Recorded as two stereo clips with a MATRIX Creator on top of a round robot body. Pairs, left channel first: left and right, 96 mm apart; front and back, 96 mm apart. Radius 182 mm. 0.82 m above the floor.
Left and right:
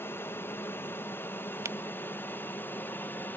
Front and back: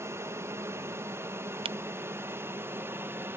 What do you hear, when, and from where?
0.0 s an aircraft: 140° left
1.6 s a camera shutter: 155° right